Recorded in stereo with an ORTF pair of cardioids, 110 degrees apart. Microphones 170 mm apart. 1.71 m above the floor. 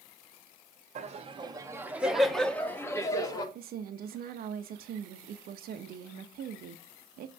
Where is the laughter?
40° right, 1.1 m; by 3.5 s 25° left, 1.8 m.